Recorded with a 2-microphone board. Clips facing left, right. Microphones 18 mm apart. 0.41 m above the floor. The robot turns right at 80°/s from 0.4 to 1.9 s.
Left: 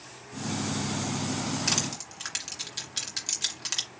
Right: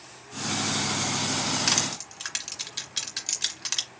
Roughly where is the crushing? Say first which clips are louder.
Right 3 dB; right.